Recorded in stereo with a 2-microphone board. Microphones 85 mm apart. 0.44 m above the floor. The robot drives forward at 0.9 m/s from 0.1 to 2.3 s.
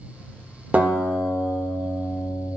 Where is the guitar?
20° right (ahead or behind), 0.8 m; by 2.5 s 10° right (ahead or behind), 1.9 m.